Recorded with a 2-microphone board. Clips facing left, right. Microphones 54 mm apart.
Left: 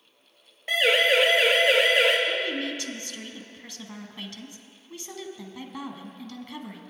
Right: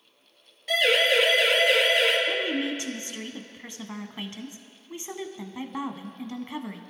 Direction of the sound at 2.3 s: 25° right (ahead or behind).